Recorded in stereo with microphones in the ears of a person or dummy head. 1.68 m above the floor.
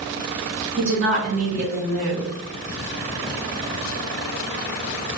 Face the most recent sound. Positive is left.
turn(degrees=-75)  # may be behind; listen again after turning